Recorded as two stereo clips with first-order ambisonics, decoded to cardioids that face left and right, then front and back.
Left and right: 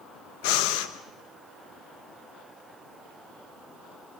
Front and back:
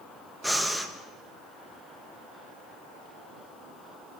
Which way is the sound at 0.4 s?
90° left.